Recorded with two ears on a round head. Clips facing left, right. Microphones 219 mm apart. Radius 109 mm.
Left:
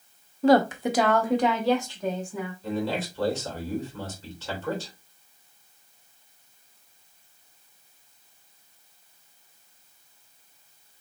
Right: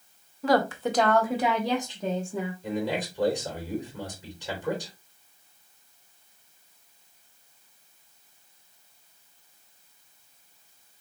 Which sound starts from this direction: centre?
A man speaking, at 2.6 s.